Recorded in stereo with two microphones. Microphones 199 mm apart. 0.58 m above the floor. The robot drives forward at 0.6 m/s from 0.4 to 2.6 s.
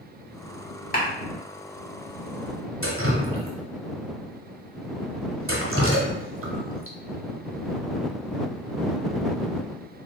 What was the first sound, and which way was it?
A clap, 45° left (ahead or behind).